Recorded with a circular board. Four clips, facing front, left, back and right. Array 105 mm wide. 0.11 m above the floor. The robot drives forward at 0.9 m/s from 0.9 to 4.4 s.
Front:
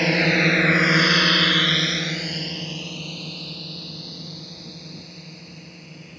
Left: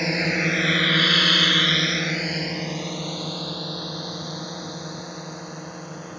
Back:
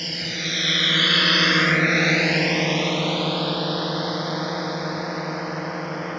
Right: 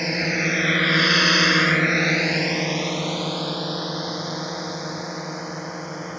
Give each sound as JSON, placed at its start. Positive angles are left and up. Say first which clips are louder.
{"t": 0.0, "sound": "a drone", "louder": "even, front 13 dB", "azimuth_deg": 0}